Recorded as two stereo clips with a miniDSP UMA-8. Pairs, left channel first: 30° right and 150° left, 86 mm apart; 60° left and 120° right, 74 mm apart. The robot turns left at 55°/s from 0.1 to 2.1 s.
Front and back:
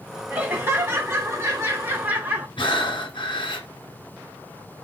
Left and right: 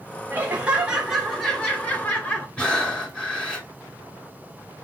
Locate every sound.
0.3 s laughter: 155° right, 0.9 m; by 2.5 s 105° left, 0.9 m
2.6 s breathing: 15° right, 1.7 m